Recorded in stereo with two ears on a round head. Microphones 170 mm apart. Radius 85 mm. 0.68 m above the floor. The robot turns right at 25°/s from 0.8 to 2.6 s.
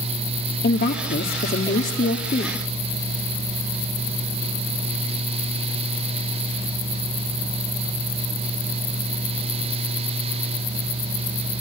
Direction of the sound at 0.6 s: 90° left.